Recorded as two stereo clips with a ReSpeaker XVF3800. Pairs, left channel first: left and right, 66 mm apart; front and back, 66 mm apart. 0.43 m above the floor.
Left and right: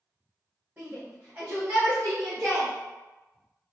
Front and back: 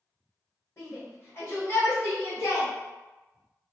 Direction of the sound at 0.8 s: 40° right.